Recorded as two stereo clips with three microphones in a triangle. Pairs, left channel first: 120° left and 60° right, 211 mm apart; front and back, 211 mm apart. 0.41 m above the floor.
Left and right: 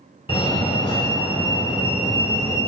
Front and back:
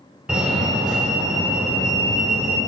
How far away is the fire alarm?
About 1.8 m.